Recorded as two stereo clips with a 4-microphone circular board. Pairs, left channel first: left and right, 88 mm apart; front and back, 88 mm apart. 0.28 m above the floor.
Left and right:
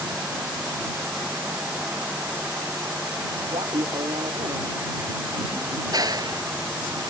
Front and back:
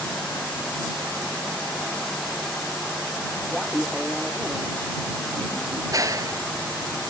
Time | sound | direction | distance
3.5 | laughter | 100° right | ?
5.9 | a clap | 130° right | ?